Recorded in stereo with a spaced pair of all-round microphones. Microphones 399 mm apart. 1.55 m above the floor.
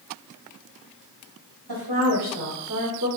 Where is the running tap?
I don't hear a running tap.